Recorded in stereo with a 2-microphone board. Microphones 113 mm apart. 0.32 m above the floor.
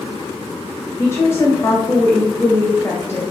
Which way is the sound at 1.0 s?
25° left (ahead or behind).